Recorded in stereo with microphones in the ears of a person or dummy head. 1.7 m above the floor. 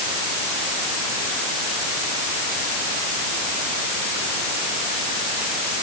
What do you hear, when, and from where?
Only background noise.